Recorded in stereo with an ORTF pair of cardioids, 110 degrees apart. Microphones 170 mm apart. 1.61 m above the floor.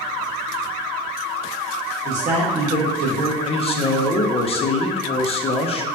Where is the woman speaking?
45° right, 1.4 m.